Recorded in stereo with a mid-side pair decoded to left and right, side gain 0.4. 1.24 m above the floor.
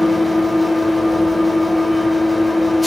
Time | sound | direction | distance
0.0 | an engine running | 10° left | 0.8 m